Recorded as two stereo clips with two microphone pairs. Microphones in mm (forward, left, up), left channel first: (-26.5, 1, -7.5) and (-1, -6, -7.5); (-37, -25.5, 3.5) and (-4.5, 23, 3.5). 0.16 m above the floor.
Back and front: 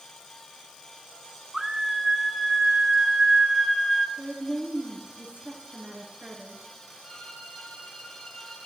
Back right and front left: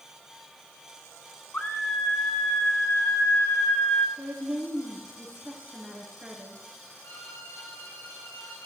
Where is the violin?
150° right, 7 m.